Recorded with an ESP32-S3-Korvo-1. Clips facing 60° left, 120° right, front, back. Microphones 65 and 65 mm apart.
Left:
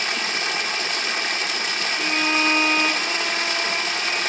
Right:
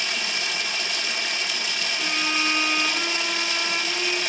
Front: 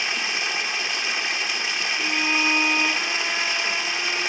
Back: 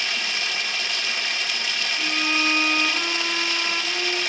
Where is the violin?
60° left, 6.5 m.